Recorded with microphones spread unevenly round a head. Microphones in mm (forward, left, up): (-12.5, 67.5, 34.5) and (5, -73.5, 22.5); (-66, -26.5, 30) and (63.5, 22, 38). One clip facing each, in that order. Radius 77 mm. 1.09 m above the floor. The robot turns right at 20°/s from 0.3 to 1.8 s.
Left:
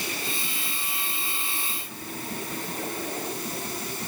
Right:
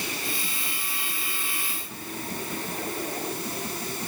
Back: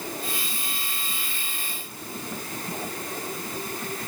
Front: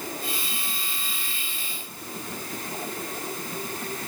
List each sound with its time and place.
Only background noise.